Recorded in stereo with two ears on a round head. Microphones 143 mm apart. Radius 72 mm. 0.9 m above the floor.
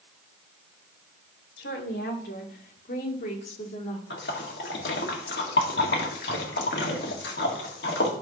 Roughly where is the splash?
Left.